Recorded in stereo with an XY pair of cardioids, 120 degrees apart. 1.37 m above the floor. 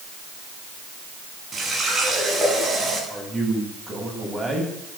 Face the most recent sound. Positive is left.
turn(degrees=-15)